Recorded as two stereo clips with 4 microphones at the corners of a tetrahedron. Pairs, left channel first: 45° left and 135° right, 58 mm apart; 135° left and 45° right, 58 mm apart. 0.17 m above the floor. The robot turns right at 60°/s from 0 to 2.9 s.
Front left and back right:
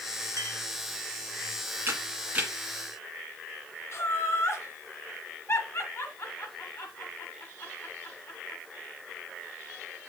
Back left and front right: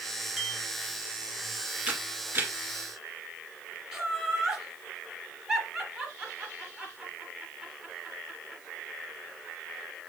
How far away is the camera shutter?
About 1.9 m.